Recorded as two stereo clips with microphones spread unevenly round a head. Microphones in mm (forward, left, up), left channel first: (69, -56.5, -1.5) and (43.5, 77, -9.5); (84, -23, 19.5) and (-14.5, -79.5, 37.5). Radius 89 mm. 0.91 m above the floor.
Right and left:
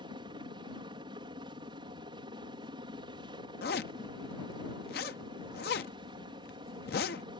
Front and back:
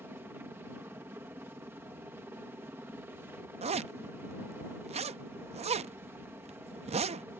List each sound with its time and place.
0.0 s a helicopter: 140° left
3.6 s a zipper: 120° right